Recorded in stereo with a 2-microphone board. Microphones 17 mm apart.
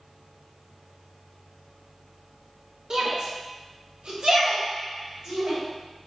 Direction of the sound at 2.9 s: 45° right (ahead or behind).